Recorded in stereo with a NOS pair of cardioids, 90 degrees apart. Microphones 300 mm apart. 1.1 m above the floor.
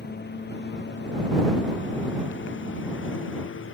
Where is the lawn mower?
35° left; by 3.8 s 45° left.